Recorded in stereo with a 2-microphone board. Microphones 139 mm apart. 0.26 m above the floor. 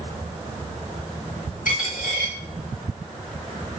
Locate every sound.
1.6 s a dropped coin: 75° left (ahead or behind), 2 m